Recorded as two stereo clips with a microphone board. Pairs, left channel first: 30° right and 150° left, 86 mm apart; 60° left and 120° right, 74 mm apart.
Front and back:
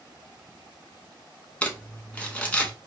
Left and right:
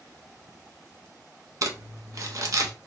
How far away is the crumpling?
About 0.6 m.